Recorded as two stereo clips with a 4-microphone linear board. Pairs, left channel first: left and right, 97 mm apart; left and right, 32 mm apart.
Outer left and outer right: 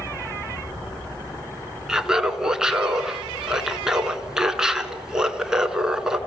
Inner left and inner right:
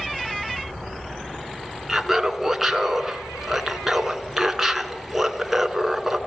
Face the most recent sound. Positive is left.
turn(degrees=-5)  # may be behind; listen again after turning